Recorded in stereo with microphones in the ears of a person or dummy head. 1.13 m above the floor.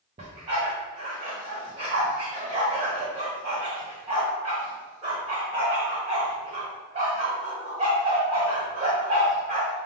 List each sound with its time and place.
0.2 s a dog barking: 25° right (ahead or behind), 0.9 m